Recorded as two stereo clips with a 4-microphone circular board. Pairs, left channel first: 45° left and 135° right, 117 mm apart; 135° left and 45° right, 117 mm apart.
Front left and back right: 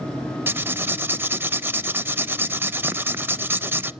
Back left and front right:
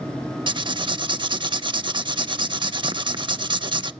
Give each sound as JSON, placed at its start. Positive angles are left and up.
{"t": 0.5, "sound": "writing", "azimuth_deg": -70, "distance_m": 0.6}